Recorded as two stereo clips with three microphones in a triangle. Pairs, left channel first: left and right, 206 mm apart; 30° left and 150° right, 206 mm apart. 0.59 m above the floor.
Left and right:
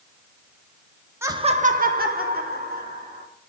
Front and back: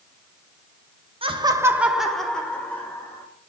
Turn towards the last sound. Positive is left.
turn(degrees=-50)